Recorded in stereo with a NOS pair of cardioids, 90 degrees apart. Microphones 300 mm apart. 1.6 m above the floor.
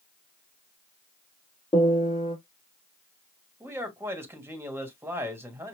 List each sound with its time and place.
1.7 s a piano: 20° left, 2.5 m
3.6 s a man speaking: 10° right, 2.5 m